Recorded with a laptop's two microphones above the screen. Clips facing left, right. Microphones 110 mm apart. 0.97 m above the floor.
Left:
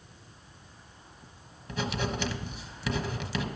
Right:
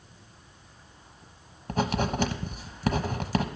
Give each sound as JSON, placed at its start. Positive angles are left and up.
{"t": 1.7, "sound": "writing", "side_deg": -45, "distance_m": 1.1}